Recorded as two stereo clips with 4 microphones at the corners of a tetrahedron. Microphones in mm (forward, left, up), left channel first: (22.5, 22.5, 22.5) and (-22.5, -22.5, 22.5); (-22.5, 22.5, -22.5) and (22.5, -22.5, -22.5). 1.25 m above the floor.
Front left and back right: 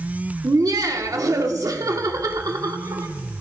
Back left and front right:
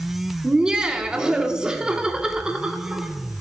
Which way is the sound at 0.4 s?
120° right.